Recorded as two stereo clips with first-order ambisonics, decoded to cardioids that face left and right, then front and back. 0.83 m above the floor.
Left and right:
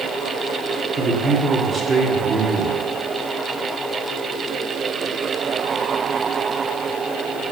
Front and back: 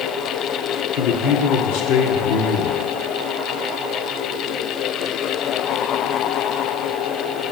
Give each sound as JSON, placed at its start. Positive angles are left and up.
{"t": 0.9, "sound": "a man speaking", "azimuth_deg": -20, "distance_m": 2.0}